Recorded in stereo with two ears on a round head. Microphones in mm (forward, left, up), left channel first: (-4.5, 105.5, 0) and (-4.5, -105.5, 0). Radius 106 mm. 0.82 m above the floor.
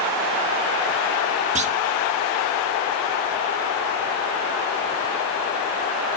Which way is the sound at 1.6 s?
30° right (ahead or behind).